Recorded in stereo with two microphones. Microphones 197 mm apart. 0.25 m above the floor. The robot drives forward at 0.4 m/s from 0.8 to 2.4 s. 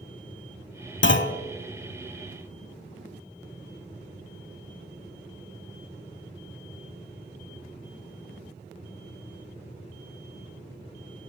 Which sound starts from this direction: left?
A clunk, at 1.0 s.